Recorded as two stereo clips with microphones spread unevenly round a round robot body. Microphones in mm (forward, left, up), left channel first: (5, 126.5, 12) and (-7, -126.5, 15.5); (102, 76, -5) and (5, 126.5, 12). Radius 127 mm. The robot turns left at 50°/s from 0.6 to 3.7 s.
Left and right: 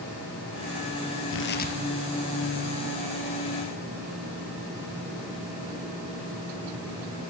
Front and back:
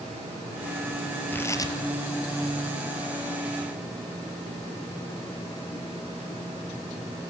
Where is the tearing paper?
45° left, 4.5 m; by 1.8 s 25° left, 4.5 m.